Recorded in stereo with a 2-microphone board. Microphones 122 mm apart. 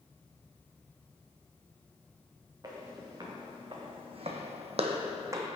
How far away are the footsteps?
About 2.5 m.